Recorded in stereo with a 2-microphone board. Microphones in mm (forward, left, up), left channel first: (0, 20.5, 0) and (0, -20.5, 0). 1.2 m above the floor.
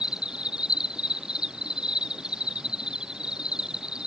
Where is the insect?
20° right (ahead or behind).